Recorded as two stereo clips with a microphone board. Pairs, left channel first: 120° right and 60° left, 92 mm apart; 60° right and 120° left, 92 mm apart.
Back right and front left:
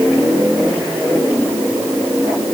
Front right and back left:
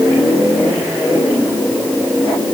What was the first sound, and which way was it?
Only background noise.